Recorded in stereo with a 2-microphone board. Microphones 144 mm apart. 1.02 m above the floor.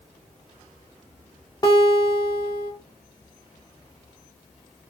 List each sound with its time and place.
1.6 s a guitar: 25° left (ahead or behind), 3 m